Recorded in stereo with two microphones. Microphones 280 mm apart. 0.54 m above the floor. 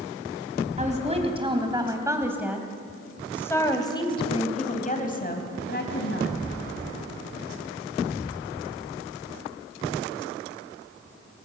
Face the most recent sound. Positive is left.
turn(degrees=45)  # may be behind; listen again after turning